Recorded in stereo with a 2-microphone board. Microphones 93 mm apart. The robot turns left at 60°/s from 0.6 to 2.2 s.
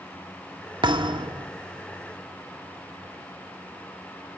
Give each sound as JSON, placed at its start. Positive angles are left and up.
{"t": 0.8, "sound": "a thud", "azimuth_deg": -75, "distance_m": 1.4}